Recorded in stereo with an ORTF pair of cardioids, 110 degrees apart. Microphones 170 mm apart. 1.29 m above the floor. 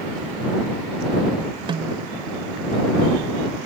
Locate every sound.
1.7 s a snare drum: 30° right